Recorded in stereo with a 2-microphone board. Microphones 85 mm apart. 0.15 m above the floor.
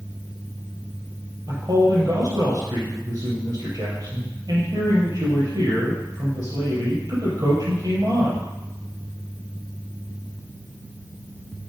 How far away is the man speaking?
About 4 m.